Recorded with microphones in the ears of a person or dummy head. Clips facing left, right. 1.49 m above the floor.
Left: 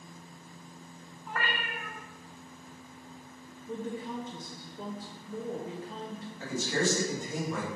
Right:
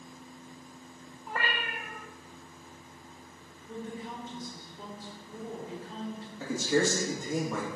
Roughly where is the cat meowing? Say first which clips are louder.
Right 1 dB; right.